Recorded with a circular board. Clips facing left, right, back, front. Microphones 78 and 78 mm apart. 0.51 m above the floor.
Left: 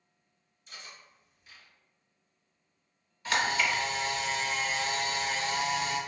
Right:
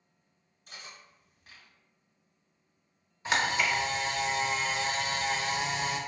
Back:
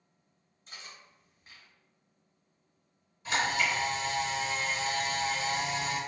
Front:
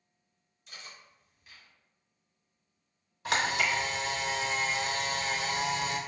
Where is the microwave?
No microwave in this recording.